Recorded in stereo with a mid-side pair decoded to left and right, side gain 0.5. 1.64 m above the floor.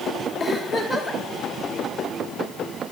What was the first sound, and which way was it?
A giggle, 5° left.